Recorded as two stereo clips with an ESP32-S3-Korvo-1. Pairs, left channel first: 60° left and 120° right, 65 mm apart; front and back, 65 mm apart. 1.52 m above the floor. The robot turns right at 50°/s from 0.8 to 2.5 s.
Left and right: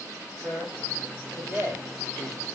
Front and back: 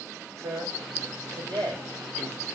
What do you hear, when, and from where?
0.4 s a man speaking: 130° left, 6 m; by 2.5 s 145° right, 6 m